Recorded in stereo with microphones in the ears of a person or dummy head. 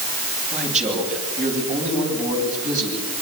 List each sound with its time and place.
0.5 s a man speaking: 40° right (ahead or behind), 9 m; by 3.0 s 45° right (ahead or behind), 12 m